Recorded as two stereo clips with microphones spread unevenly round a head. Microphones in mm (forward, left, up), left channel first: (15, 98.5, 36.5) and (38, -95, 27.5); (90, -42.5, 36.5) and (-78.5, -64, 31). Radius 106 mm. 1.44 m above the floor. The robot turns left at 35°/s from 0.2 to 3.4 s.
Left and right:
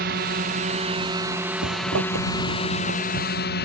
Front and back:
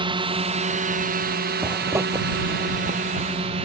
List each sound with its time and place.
0.0 s a drone: 115° right; by 3.7 s 130° left
1.6 s a zipper: 85° right; by 3.3 s 145° right